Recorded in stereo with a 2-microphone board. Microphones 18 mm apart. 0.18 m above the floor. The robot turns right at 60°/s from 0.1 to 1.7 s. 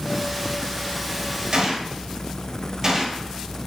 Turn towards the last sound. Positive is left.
turn(degrees=-35)  # may be behind; listen again after turning